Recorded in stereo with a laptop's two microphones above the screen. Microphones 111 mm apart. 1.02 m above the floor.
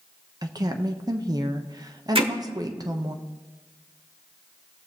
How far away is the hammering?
About 1.1 m.